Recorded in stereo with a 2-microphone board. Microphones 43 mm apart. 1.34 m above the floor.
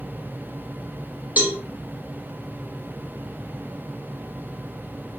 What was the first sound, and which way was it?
A cowbell, 40° right (ahead or behind).